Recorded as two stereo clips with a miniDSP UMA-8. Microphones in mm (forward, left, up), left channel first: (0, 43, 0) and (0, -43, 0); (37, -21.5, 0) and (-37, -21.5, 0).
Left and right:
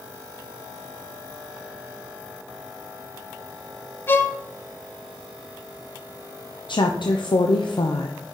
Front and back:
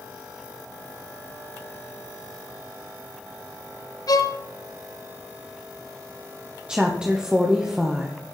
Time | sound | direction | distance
4.1 | a violin | 30° left | 0.7 m
6.7 | a woman speaking | 100° left | 0.9 m